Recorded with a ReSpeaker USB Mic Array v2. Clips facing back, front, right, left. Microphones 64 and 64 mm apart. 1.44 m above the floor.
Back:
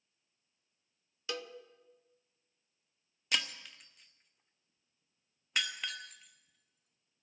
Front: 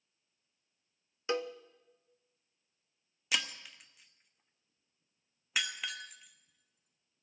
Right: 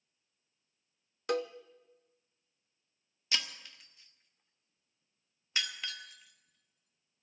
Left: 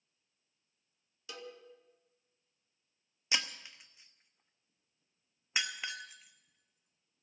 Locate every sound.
1.3 s a cowbell: 60° right, 0.5 m
3.3 s breaking glass: 80° left, 0.8 m